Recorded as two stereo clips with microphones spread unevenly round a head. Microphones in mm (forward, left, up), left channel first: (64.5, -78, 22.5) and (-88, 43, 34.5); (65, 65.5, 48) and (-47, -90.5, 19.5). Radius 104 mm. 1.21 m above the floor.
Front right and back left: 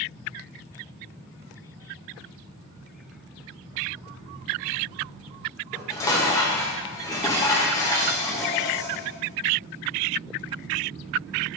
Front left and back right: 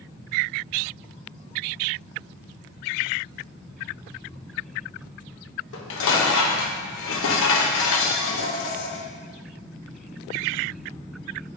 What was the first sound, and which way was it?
Dishes clattering, 40° left.